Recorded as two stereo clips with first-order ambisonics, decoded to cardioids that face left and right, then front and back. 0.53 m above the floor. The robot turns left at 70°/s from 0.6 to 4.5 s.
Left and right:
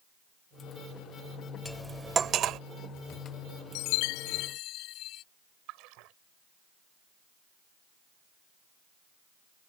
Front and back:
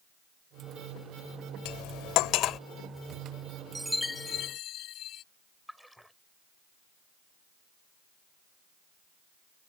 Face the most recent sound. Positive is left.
turn(degrees=-90)